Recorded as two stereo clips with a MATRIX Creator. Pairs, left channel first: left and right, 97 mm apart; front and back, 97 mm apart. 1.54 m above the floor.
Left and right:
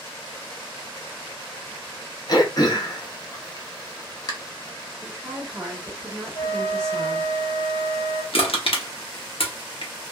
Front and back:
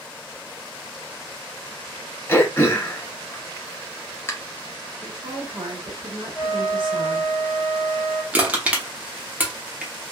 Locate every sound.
2.3 s throat clearing: 60° left, 0.7 m
5.0 s a woman speaking: 150° right, 1.2 m
6.3 s a flute: 100° left, 1.0 m
8.3 s crushing: 105° left, 0.8 m